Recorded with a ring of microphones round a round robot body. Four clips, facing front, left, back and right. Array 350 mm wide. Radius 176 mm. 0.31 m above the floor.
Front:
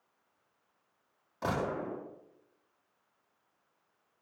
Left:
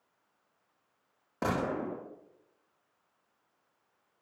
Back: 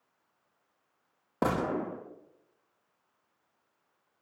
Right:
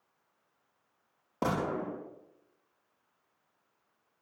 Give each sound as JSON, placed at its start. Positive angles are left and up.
{"t": 1.4, "sound": "a gunshot", "azimuth_deg": -170, "distance_m": 8.0}